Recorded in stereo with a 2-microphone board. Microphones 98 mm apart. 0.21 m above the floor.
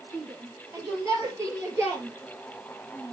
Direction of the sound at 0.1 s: 30° right (ahead or behind).